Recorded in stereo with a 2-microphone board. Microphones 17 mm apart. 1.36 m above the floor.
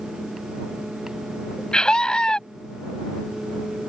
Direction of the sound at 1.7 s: 55° left (ahead or behind).